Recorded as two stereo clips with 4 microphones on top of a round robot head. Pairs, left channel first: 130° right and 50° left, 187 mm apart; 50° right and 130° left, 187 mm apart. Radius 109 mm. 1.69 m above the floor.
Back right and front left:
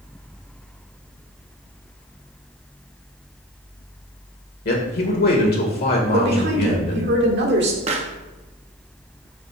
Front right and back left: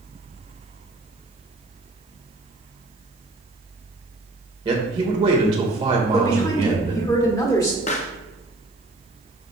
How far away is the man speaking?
About 2 m.